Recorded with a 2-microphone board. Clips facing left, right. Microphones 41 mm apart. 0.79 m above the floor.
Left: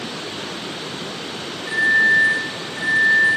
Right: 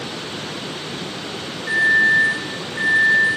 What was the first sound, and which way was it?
A microwave, 5° right (ahead or behind).